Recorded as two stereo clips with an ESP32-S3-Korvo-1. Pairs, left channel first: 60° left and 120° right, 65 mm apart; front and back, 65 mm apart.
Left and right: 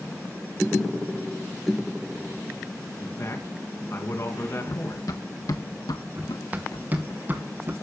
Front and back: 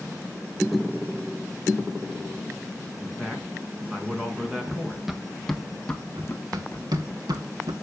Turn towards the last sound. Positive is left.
turn(degrees=180)